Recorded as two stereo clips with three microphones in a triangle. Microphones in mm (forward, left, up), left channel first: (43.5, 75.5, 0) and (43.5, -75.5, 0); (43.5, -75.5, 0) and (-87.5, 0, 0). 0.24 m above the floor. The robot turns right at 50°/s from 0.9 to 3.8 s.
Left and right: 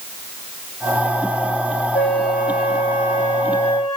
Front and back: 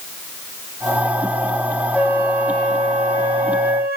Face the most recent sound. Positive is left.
turn(degrees=155)